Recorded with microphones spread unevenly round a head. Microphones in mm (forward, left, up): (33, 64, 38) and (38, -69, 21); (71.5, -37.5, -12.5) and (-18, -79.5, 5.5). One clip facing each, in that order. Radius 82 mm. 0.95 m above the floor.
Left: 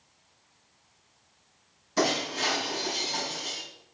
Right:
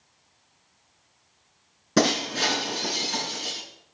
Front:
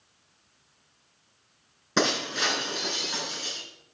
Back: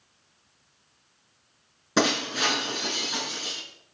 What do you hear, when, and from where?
2.0 s breaking glass: 75° right, 6.5 m